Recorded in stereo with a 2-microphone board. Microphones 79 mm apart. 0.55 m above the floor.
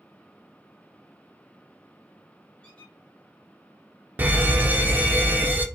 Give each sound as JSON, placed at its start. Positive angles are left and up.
{"t": 2.6, "sound": "a squeak", "side_deg": 15, "distance_m": 2.0}
{"t": 4.2, "sound": "an alarm", "side_deg": -25, "distance_m": 0.5}